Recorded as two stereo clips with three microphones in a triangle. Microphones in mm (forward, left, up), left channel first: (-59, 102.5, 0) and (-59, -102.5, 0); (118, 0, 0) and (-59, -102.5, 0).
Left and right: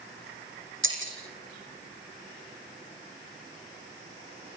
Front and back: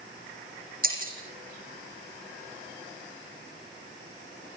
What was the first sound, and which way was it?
Breaking glass, 105° right.